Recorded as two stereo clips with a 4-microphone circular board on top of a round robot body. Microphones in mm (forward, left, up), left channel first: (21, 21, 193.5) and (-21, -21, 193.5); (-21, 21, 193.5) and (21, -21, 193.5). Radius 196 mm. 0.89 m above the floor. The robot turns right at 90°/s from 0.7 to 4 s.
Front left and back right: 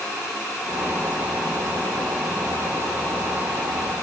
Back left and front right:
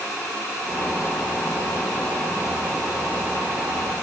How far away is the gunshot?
No gunshot in this recording.